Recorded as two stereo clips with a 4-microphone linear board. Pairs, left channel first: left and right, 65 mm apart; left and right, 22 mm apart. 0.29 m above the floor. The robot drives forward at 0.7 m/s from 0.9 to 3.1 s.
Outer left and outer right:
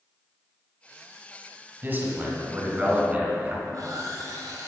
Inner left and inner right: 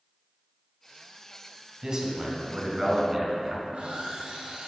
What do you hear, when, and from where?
1.8 s a man speaking: 30° right (ahead or behind), 1.7 m; by 3.5 s 20° right (ahead or behind), 2.5 m
3.6 s sawing: 60° right (ahead or behind), 1.9 m